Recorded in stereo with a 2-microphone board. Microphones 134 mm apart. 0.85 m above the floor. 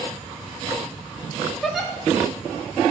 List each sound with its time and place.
1.6 s a giggle: centre (ahead or behind), 1.6 m